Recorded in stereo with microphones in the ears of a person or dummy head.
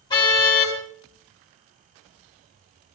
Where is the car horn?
25° left (ahead or behind), 4 m.